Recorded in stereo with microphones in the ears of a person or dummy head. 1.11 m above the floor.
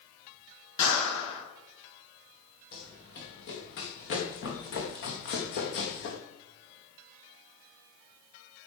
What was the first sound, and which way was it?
A clap, 30° left (ahead or behind).